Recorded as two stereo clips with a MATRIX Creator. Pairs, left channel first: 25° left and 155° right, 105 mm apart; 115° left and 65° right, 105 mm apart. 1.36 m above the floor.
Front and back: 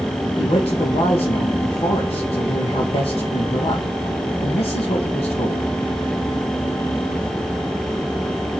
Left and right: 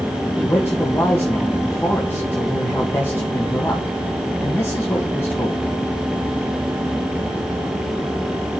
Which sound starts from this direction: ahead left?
A man speaking, at 0.4 s.